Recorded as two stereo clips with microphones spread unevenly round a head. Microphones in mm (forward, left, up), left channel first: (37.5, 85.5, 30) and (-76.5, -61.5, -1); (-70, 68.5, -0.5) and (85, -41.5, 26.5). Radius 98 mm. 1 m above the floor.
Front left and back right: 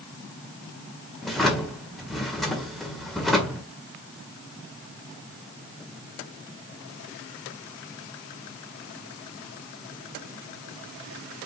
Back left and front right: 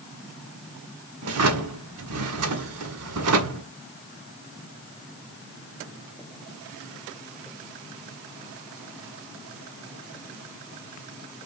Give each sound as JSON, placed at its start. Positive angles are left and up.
{"t": 1.2, "sound": "a drawer", "azimuth_deg": -35, "distance_m": 1.7}